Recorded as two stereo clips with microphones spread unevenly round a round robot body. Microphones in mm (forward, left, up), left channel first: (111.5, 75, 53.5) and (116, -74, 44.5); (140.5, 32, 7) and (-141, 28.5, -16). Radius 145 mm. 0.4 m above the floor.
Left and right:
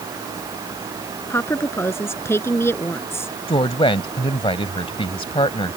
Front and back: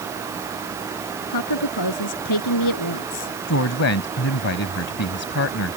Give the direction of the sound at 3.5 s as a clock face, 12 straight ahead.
11 o'clock.